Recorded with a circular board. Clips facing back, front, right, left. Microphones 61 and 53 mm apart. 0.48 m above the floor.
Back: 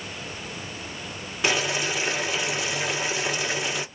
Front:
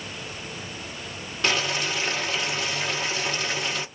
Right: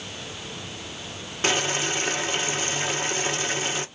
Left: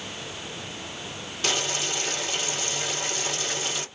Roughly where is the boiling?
Right.